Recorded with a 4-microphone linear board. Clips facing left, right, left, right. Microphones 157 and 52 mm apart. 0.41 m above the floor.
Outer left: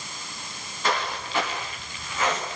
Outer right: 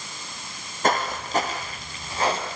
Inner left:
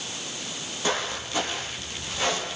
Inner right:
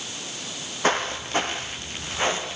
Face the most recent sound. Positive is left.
turn(degrees=-30)  # may be behind; listen again after turning